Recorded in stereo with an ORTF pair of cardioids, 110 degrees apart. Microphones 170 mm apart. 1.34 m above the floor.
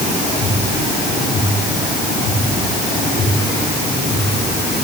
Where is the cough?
No cough in this recording.